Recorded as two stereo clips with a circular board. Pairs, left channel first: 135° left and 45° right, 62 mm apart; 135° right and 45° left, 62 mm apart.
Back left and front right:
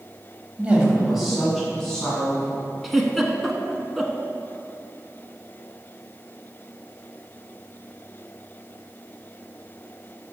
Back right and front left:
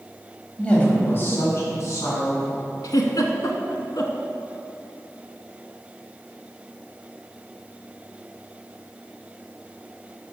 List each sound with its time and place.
0.6 s a woman speaking: 80° right, 1.2 m; by 2.6 s 150° right, 2.5 m
2.8 s a giggle: 135° right, 0.7 m